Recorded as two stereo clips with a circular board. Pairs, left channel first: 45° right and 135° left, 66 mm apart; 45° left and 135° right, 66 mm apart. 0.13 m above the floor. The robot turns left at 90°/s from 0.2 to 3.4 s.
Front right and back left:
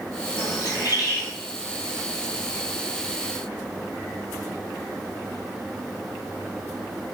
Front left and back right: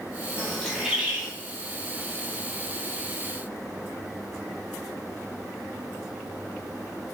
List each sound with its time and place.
0.4 s a bird: 10° right, 1.2 m; by 1.3 s 90° right, 1.2 m